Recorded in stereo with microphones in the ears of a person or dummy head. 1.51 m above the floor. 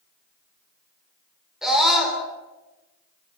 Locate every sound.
1.6 s a scream: 5° right (ahead or behind), 5.5 m